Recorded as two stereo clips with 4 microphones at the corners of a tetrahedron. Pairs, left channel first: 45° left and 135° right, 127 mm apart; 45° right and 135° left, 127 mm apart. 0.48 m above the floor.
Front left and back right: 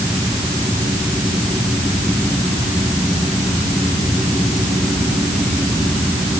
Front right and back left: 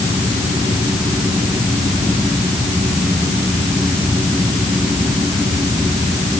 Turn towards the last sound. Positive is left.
No sound to turn to.